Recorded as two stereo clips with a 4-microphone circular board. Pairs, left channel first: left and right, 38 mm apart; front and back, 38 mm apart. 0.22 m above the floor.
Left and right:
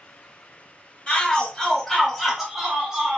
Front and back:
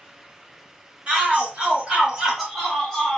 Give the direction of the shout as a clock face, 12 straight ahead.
7 o'clock.